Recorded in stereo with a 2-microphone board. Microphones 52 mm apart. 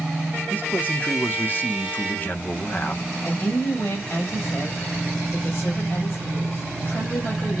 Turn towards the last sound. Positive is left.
turn(degrees=50)  # may be behind; listen again after turning